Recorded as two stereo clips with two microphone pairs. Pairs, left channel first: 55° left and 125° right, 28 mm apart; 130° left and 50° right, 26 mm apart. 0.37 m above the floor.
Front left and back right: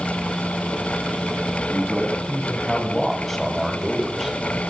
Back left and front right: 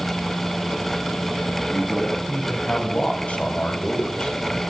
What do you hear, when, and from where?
1.7 s a man speaking: 130° left, 4 m; by 4.3 s 160° left, 1.3 m